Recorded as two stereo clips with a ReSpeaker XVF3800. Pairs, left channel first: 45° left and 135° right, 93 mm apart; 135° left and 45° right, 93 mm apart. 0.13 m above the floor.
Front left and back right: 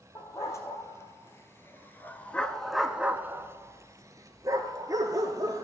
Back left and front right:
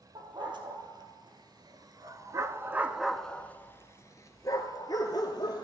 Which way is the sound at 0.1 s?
10° right.